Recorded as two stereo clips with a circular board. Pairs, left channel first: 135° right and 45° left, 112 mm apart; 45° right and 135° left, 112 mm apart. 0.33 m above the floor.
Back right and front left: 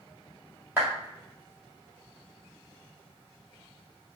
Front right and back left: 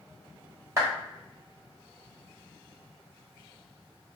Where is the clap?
100° left, 1.4 m.